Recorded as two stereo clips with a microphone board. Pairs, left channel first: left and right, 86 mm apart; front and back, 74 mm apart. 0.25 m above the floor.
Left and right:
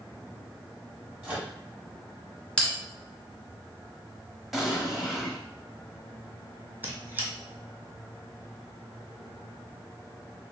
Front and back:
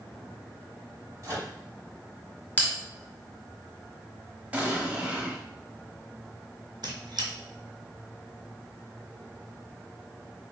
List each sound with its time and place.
1.2 s a microwave: 155° right, 1.6 m
2.6 s a bell: 20° left, 1.3 m
4.5 s an explosion: 175° right, 0.8 m
6.8 s a squeak: 160° right, 1.0 m